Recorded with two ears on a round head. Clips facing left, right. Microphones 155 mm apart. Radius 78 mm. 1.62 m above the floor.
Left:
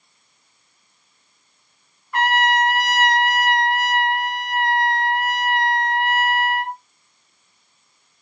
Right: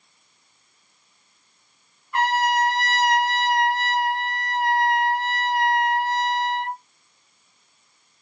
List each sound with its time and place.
2.1 s a trumpet: 45° left (ahead or behind), 1.0 m